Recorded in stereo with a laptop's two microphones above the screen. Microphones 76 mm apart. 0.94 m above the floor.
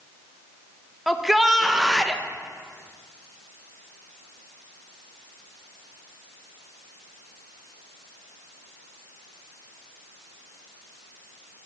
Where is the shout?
Centre (ahead or behind), 0.5 m.